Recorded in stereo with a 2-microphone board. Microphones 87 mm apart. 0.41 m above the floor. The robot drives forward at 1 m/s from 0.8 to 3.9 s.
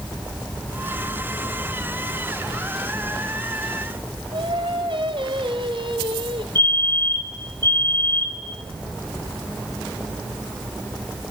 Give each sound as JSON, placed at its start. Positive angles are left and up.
{"t": 4.3, "sound": "singing", "side_deg": -60, "distance_m": 1.8}
{"t": 6.5, "sound": "a fire alarm", "side_deg": 25, "distance_m": 3.5}